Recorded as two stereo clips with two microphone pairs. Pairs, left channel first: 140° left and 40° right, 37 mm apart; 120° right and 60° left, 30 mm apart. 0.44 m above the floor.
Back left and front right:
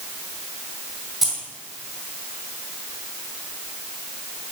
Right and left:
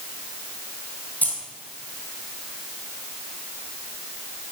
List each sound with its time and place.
1.2 s keys jangling: 120° right, 2.5 m